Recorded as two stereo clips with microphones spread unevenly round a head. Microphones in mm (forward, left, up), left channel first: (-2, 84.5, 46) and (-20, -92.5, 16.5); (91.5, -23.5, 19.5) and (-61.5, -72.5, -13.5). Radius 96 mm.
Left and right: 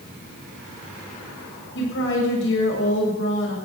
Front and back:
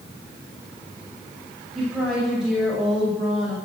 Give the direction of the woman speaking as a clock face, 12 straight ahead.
8 o'clock.